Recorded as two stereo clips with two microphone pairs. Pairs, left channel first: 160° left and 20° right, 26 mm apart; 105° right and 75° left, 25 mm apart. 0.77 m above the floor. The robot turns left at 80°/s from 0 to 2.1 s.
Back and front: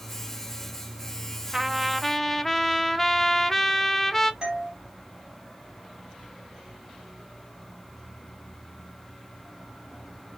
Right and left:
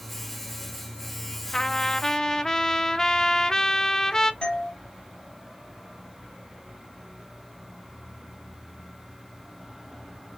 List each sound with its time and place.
1.5 s a trumpet: 85° right, 0.5 m; by 4.3 s 130° right, 0.5 m
4.4 s a doorbell: 65° right, 1.4 m